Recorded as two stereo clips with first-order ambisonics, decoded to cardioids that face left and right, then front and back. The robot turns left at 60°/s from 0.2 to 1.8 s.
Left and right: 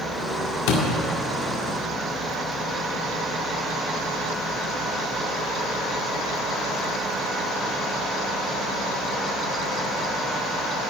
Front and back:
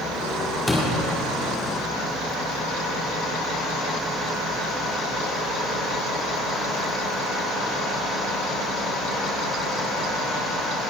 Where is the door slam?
85° left, 1.7 m; by 0.9 s 70° left, 1.7 m.